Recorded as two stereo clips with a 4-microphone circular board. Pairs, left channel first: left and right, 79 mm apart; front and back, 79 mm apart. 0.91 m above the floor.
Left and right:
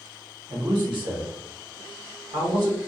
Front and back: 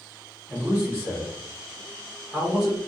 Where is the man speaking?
105° right, 0.8 m.